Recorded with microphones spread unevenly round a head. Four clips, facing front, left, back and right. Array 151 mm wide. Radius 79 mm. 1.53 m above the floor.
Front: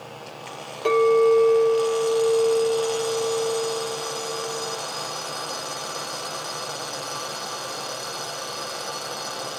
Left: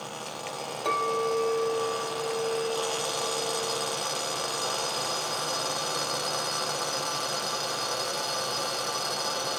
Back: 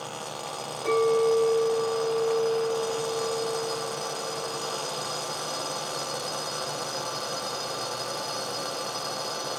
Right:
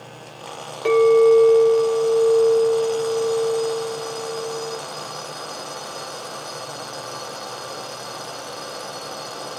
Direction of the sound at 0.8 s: 35° right.